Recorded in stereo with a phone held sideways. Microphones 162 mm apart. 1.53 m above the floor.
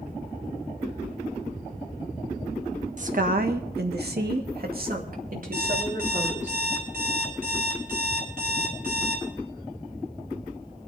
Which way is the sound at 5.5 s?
70° right (ahead or behind).